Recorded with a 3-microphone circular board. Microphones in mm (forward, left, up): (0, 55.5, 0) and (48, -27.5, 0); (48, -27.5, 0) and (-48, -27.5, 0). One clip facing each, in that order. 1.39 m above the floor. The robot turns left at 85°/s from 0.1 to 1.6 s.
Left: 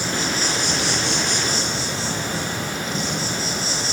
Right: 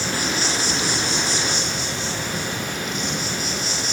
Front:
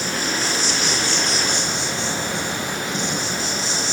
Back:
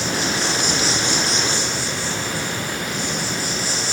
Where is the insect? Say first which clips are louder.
Even, back 2 dB; 170° right, 5 m; by 3.9 s 65° left, 5 m.